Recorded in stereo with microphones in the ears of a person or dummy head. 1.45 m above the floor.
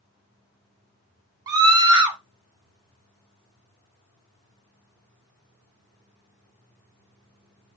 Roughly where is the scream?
Right.